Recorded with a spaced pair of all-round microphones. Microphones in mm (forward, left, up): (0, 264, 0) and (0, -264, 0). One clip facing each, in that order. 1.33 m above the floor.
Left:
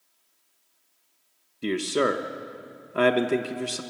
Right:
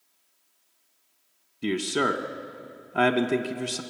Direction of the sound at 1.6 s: 10° right (ahead or behind).